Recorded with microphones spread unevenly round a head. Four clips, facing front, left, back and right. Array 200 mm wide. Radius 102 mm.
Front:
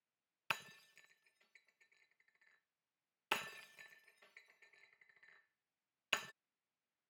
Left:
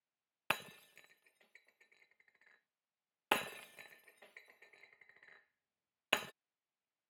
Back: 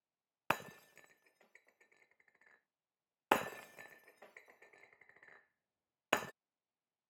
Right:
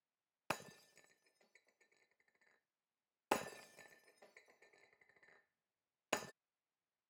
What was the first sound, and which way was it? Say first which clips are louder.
Breaking glass: left 4 dB, back 8 dB; 175° right.